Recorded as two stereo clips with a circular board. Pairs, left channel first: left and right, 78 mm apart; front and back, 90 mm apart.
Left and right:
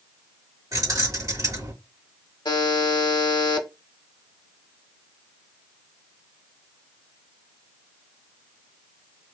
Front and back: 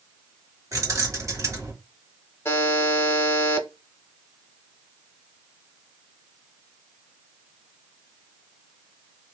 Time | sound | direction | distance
0.7 | keys jangling | 130° right | 1.7 m
2.5 | a buzzer | 60° left | 0.7 m